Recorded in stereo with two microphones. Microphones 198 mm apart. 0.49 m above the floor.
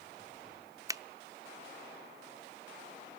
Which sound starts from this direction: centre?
A finger snap, at 0.9 s.